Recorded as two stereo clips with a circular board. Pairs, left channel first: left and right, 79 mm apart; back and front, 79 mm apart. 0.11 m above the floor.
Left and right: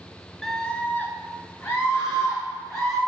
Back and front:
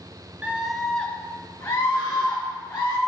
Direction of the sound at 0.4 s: 5° left.